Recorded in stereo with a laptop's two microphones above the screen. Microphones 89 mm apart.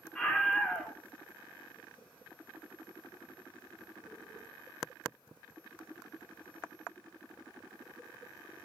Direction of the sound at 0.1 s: 10° left (ahead or behind).